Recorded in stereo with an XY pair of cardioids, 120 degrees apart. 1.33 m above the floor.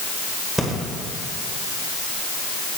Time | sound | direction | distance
0.6 | breathing | straight ahead | 2.5 m